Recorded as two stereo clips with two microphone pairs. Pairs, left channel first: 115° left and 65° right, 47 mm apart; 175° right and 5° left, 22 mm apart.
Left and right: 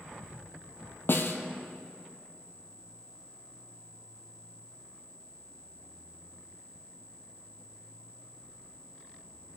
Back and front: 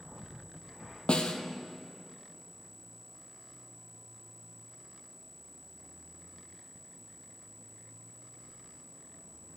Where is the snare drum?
155° left, 0.7 m.